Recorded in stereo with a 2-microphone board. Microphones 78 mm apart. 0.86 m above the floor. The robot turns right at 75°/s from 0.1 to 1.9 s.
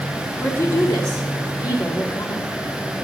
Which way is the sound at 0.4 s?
30° left.